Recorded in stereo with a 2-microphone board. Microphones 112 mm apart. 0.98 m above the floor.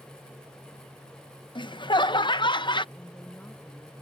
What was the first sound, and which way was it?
Laughter, 40° left (ahead or behind).